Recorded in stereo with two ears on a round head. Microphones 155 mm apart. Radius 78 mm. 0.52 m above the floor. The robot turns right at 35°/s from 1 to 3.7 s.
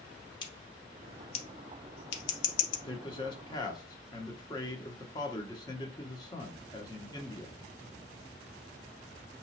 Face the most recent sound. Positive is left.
turn(degrees=25)  # may be behind; listen again after turning